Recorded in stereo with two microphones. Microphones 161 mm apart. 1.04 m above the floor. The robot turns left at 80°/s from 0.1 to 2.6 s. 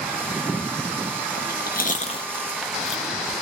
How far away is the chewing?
About 0.8 m.